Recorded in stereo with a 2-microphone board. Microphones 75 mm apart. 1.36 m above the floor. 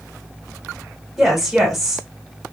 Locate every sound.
1.2 s a woman speaking: centre (ahead or behind), 2.5 m